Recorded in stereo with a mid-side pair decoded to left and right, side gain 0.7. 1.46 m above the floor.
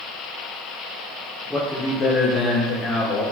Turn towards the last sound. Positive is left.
turn(degrees=70)